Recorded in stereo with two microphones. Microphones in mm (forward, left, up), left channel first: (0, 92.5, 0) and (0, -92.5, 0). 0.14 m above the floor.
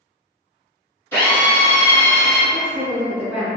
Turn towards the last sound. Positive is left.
turn(degrees=-10)  # may be behind; listen again after turning